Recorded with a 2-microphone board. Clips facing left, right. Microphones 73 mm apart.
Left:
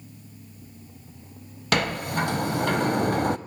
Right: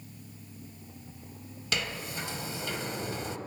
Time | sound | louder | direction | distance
1.7 | a sliding door | left 10 dB | 55° left (ahead or behind) | 0.6 m